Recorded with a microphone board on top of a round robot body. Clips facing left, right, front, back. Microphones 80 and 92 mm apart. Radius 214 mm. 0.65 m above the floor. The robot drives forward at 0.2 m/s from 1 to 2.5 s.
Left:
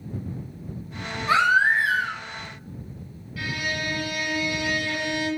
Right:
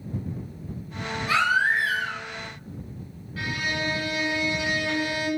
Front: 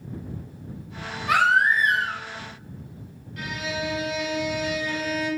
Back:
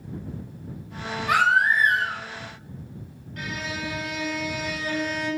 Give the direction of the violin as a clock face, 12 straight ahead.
5 o'clock.